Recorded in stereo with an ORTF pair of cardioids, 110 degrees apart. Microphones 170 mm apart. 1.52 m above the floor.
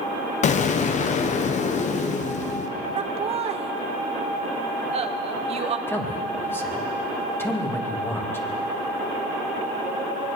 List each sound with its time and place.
0.4 s an explosion: 45° left, 0.9 m
3.0 s laughter: 40° right, 1.1 m
5.9 s a man speaking: 15° left, 2 m